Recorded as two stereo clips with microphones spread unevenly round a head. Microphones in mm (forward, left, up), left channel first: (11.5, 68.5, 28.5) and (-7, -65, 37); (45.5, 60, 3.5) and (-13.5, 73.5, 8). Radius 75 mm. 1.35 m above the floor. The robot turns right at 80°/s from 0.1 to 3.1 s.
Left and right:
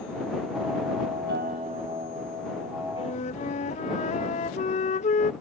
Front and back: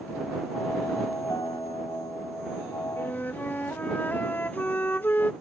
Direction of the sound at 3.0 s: 35° left.